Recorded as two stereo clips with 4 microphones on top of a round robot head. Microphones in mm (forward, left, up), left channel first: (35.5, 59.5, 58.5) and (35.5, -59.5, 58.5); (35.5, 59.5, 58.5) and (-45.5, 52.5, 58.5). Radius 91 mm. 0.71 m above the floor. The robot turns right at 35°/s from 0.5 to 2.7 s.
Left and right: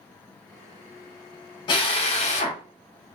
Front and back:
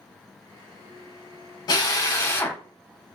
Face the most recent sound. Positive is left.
turn(degrees=75)